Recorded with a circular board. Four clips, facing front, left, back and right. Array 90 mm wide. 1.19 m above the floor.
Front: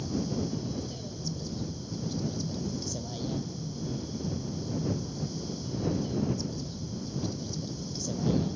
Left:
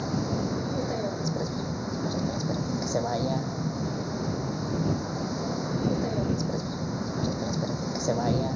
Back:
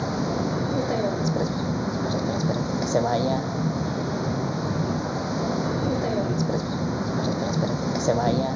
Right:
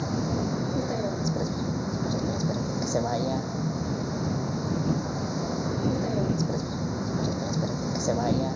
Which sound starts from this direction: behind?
A vehicle, at 0.0 s.